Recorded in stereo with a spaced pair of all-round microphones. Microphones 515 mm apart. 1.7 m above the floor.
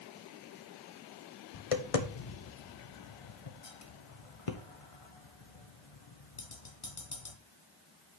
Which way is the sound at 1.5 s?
80° left.